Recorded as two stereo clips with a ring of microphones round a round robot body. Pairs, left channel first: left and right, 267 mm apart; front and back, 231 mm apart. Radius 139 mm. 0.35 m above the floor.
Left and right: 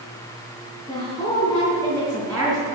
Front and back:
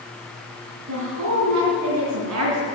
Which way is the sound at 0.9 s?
160° left.